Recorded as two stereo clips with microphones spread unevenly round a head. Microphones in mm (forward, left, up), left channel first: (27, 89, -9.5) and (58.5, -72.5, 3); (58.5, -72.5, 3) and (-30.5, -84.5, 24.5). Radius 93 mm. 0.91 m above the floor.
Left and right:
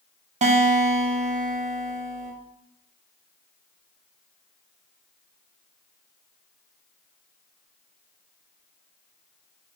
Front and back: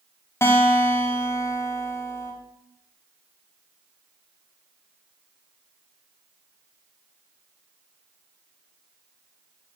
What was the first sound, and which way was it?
A guitar, 40° right.